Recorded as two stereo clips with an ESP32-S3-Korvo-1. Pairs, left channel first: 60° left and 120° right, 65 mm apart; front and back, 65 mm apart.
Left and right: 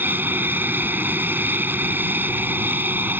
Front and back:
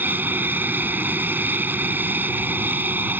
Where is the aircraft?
150° right.